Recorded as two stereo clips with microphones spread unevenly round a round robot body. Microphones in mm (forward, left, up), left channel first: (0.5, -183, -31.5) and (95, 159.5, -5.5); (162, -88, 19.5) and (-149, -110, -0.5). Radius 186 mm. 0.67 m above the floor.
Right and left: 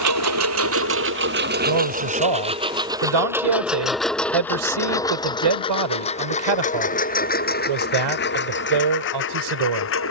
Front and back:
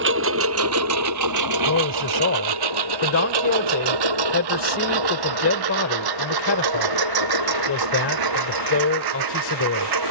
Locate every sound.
0.0 s a lawn mower: 120° left; by 10.1 s 165° right
1.7 s a man speaking: 60° left